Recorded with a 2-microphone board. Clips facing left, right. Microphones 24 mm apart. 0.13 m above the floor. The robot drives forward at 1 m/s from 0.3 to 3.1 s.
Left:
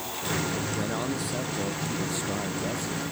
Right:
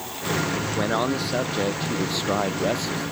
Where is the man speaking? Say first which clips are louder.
Right 6 dB; 40° right (ahead or behind); by 3.1 s 60° right (ahead or behind).